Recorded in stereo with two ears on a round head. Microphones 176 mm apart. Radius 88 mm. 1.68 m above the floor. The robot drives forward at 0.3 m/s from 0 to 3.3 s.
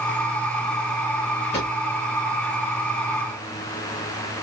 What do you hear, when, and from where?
1.5 s a drawer: 30° left (ahead or behind), 3.5 m